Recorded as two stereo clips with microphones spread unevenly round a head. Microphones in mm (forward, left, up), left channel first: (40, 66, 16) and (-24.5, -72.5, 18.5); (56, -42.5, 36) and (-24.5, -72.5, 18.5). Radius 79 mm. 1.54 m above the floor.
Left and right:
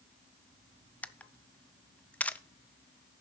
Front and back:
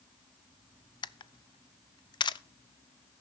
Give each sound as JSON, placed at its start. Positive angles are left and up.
{"t": 1.0, "sound": "a camera shutter", "azimuth_deg": -15, "distance_m": 0.5}